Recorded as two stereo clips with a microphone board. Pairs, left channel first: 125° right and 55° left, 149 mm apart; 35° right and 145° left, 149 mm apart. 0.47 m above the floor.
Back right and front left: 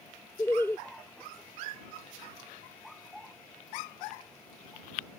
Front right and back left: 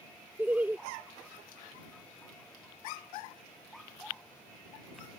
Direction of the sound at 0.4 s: 160° right.